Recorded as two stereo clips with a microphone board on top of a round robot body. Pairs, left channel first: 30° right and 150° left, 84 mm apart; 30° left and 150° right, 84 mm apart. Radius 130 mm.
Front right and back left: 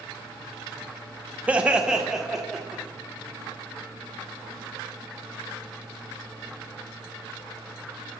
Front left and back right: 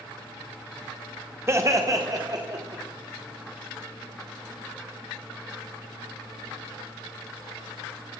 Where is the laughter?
155° right, 1.0 m; by 2.8 s 120° right, 1.8 m.